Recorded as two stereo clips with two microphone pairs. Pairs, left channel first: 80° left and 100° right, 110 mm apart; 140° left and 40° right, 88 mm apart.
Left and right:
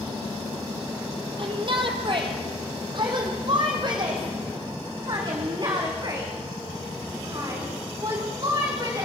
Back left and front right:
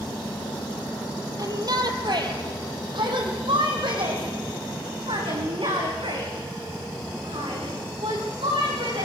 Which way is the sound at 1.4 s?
75° right.